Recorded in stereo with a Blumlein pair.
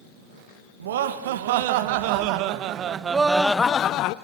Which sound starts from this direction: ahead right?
Laughter, at 0.8 s.